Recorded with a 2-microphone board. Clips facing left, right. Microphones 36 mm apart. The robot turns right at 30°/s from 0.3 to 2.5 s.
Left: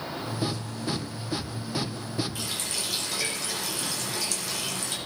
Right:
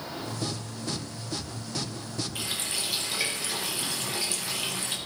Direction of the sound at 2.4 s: 25° right (ahead or behind).